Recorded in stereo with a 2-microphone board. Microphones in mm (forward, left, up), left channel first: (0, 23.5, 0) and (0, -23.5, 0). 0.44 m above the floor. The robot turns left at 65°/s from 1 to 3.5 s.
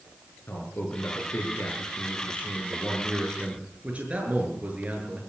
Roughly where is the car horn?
I don't hear a car horn.